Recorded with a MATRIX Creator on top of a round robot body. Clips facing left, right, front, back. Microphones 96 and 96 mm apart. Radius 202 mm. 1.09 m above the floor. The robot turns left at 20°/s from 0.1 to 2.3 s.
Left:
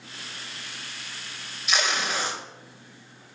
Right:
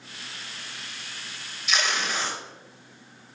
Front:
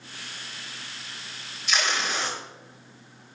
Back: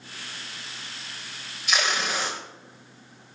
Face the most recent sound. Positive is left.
turn(degrees=140)